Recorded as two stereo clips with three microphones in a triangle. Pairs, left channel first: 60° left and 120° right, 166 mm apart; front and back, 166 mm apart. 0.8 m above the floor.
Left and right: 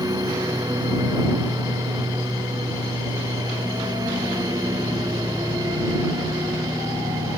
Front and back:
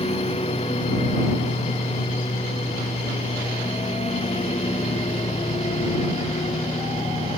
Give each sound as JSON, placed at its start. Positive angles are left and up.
{"t": 0.0, "sound": "a lawn mower", "azimuth_deg": -50}